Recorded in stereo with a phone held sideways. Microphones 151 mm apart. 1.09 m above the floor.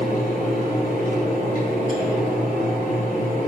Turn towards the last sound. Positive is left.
turn(degrees=65)  # may be behind; listen again after turning